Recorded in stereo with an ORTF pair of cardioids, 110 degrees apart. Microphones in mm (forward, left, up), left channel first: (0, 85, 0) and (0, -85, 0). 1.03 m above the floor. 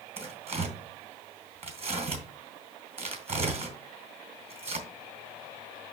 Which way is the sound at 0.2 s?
45° right.